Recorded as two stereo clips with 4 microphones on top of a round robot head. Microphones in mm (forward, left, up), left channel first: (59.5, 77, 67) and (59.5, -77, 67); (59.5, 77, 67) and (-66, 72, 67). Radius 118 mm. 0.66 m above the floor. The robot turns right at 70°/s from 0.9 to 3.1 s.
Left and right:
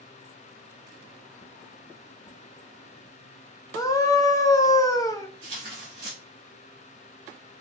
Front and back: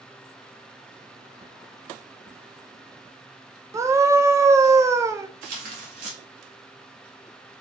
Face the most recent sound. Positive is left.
turn(degrees=-160)